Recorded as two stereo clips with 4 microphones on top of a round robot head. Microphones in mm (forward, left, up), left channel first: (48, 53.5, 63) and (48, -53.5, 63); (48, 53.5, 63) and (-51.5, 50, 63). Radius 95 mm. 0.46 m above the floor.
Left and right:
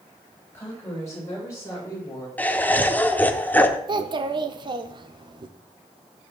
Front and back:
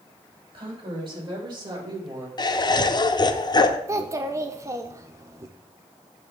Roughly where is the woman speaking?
Behind left.